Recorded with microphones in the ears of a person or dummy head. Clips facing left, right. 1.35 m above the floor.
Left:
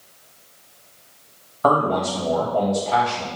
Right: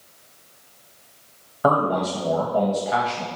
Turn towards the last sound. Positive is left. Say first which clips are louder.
# left 1 dB
turn(degrees=-10)  # may be behind; listen again after turning